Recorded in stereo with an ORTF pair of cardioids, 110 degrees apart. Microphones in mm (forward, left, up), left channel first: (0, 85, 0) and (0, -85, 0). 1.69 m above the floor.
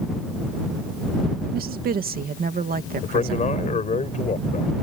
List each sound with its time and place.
1.5 s a woman speaking: 60° right
3.0 s a man speaking: 45° left